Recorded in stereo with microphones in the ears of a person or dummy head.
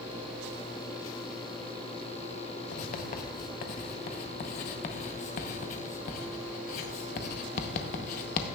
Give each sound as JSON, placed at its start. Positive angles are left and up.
{"t": 2.7, "sound": "writing", "side_deg": 45, "distance_m": 0.8}